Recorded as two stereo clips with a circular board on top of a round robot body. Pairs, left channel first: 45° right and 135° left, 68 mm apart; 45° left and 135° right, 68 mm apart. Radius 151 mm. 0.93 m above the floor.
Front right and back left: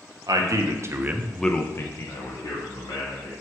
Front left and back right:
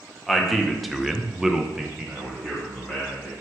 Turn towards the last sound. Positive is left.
turn(degrees=-50)